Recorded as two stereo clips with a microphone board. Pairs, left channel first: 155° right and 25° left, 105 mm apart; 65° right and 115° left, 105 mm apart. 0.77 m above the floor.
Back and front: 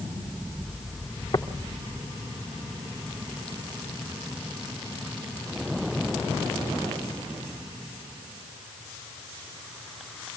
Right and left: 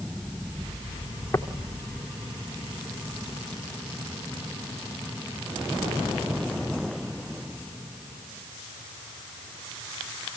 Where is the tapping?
140° right, 2.5 m.